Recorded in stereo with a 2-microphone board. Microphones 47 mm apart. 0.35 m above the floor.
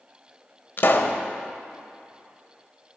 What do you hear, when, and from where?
0.8 s a pop: 50° left (ahead or behind), 0.8 m